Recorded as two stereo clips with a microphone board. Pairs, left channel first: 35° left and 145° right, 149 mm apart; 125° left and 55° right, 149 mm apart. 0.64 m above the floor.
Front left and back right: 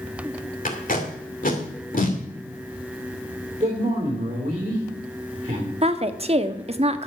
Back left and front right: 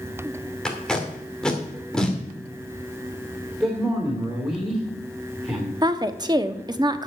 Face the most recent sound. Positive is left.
turn(degrees=-110)